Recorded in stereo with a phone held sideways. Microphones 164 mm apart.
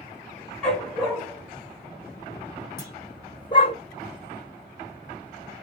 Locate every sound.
0.6 s a dog barking: 5° left (ahead or behind), 2.5 m; by 3.8 s 30° left (ahead or behind), 1.4 m
2.8 s a clunk: 25° left (ahead or behind), 2.0 m